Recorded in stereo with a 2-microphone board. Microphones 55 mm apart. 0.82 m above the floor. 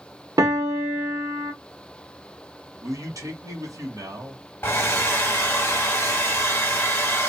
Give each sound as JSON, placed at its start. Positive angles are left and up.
{"t": 0.4, "sound": "a piano", "side_deg": -80, "distance_m": 0.9}
{"t": 2.8, "sound": "a man speaking", "side_deg": -70, "distance_m": 1.3}
{"t": 4.6, "sound": "a hair dryer", "side_deg": 35, "distance_m": 1.0}